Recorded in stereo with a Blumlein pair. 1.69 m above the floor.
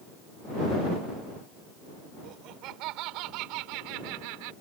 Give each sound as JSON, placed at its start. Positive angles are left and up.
{"t": 2.2, "sound": "laughter", "azimuth_deg": -35}